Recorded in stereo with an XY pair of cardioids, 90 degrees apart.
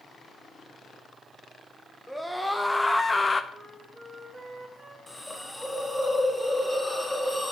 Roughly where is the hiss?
Ahead.